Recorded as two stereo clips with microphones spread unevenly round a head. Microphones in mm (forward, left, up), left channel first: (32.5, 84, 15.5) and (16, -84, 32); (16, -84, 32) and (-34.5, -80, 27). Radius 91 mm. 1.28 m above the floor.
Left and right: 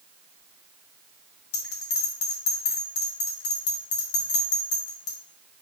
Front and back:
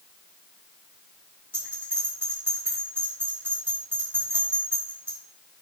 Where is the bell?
100° left, 2.5 m.